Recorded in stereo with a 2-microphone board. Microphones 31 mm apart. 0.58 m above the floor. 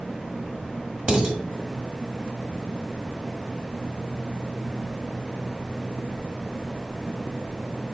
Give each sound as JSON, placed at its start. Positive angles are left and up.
{"t": 1.1, "sound": "dishes clattering", "side_deg": -35, "distance_m": 1.2}